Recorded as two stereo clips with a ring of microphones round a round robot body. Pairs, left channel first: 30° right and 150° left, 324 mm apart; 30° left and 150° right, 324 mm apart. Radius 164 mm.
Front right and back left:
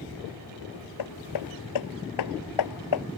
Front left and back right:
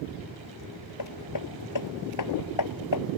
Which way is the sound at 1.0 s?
5° right.